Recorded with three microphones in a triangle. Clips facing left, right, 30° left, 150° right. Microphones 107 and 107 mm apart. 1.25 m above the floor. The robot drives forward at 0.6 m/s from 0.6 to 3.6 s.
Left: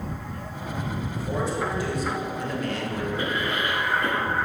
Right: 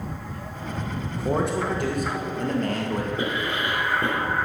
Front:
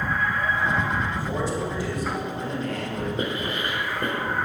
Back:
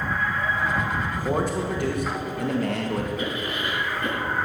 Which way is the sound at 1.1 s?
105° right.